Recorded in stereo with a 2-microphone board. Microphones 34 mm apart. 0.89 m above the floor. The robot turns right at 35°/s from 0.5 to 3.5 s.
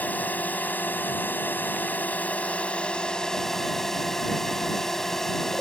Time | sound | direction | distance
0.0 | a drone | 65° left | ?